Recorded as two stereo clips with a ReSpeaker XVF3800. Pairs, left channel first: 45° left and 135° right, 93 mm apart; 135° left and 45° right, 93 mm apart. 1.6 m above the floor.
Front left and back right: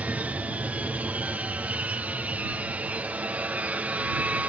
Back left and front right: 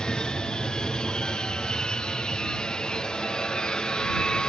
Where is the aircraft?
165° right.